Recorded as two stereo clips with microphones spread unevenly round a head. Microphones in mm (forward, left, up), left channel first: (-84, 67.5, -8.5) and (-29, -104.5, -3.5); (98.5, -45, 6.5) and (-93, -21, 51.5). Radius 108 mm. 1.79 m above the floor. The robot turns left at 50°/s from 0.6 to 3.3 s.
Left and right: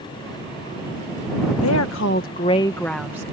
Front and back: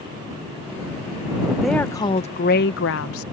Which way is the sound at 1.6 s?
85° left.